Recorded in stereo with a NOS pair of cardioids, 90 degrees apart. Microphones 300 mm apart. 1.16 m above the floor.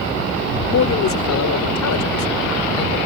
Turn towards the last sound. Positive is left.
turn(degrees=60)